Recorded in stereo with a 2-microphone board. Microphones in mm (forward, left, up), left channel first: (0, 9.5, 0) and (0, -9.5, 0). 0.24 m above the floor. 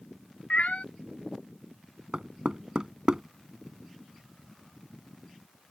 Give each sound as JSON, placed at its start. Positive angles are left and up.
{"t": 0.5, "sound": "a cat meowing", "side_deg": 75}
{"t": 2.1, "sound": "knocking", "side_deg": -40}